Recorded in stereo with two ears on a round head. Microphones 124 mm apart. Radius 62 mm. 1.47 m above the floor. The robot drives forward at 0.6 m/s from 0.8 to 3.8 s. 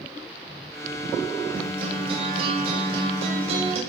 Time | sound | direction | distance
1.5 | a guitar | 40° right (ahead or behind) | 6.5 m